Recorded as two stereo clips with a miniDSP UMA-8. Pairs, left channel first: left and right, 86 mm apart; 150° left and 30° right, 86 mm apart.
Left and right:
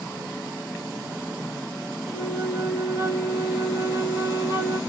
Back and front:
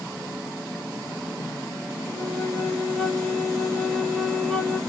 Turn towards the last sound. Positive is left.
turn(degrees=65)